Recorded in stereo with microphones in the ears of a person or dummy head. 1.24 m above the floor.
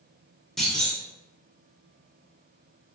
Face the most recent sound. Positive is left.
turn(degrees=0)  # may be behind; listen again after turning